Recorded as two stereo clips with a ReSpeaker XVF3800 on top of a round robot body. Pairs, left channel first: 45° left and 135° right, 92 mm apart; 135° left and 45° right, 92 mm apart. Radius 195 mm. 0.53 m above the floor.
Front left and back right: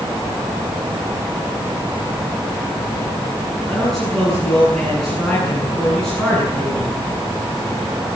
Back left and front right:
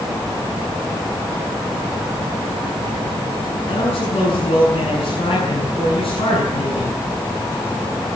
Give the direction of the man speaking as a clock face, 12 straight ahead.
8 o'clock.